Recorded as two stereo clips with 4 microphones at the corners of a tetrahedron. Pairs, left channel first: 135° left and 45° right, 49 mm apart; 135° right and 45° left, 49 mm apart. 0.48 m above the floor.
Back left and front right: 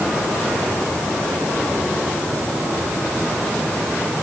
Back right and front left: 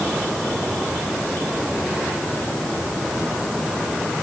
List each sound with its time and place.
Only background noise.